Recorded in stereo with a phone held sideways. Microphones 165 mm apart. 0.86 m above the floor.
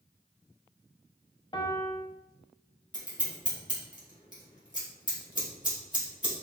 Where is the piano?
30° left (ahead or behind), 0.5 m.